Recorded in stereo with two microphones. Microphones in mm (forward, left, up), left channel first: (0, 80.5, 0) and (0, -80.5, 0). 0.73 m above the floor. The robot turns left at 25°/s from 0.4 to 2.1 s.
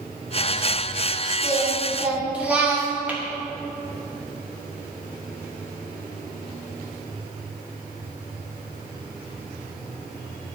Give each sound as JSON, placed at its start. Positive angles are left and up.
{"t": 1.4, "sound": "singing", "side_deg": -25, "distance_m": 2.0}
{"t": 3.1, "sound": "tapping", "side_deg": -10, "distance_m": 1.7}